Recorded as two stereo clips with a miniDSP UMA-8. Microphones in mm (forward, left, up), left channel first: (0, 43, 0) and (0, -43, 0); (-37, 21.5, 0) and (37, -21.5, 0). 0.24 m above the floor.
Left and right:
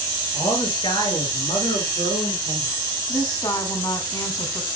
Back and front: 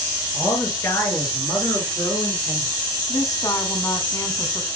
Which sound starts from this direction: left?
A man speaking, at 0.3 s.